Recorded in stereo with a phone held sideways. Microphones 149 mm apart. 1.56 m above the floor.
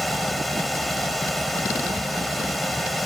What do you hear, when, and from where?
0.0 s a fan: centre (ahead or behind)